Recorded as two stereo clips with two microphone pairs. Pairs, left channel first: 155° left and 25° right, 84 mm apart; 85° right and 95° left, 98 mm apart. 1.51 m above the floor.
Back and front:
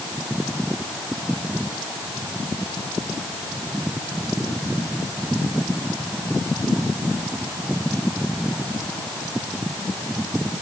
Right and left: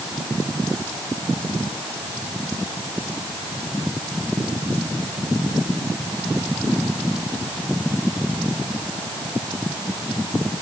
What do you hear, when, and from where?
Only background noise.